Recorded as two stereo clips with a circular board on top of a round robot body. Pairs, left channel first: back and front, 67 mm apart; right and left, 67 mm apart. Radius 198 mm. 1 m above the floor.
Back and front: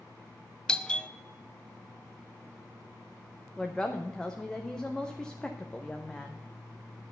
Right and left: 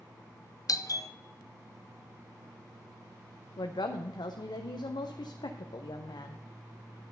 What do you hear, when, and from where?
0.7 s a doorbell: 105° right, 0.9 m
3.6 s a woman speaking: 100° right, 0.7 m